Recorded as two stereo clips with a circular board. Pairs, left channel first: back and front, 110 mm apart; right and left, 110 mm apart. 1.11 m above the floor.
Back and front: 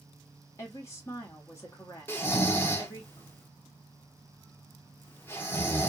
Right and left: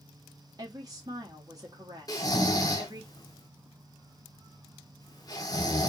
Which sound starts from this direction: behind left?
A woman speaking, at 0.6 s.